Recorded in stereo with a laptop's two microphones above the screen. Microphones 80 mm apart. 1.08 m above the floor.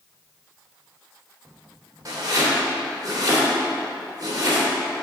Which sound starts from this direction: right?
Chopping, at 2.0 s.